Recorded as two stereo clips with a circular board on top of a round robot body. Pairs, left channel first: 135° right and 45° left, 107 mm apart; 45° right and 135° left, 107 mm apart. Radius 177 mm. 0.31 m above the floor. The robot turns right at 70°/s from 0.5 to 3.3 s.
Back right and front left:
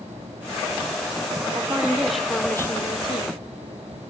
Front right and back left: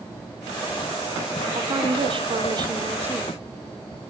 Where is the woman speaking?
95° left, 1.4 m; by 3.4 s 145° right, 1.4 m.